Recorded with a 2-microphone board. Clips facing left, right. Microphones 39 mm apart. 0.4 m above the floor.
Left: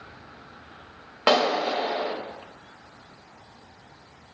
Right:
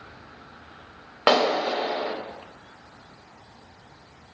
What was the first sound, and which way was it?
A clap, 20° right (ahead or behind).